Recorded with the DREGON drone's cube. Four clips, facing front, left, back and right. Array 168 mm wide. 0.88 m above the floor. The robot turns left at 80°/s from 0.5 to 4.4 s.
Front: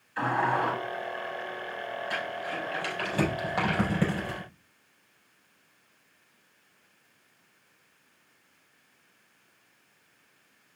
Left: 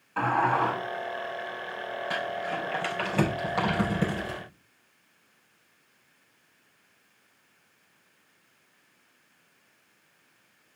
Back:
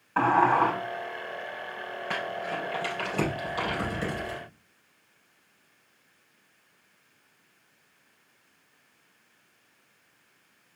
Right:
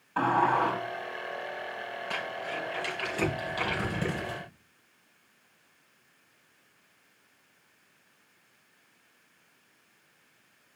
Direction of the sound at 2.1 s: 160° left.